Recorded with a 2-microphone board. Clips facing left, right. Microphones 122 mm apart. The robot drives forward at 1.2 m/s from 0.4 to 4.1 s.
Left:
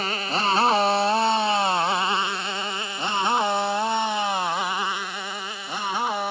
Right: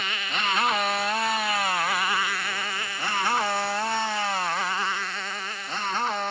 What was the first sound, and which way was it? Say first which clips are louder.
A motorcycle: left 5 dB; 35° left (ahead or behind).